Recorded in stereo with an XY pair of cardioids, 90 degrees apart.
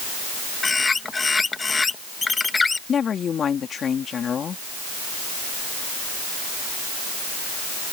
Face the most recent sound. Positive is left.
turn(degrees=55)